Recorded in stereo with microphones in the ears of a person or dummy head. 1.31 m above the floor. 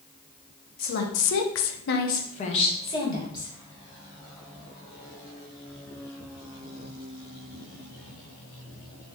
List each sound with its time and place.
0.8 s a woman speaking: 45° left (ahead or behind), 0.7 m; by 3.5 s 20° left (ahead or behind), 1.4 m